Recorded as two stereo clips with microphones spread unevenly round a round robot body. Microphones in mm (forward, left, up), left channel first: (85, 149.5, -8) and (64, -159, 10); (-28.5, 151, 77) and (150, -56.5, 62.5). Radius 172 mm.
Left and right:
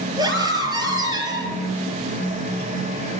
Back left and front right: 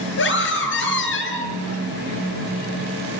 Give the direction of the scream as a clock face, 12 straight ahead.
6 o'clock.